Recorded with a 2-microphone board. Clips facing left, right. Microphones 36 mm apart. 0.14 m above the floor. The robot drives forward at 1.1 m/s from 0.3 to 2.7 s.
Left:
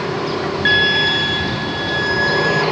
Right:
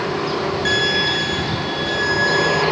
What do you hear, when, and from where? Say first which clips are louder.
0.7 s a violin: left 5 dB; 25° left (ahead or behind), 0.9 m; by 2.6 s 5° left (ahead or behind), 3 m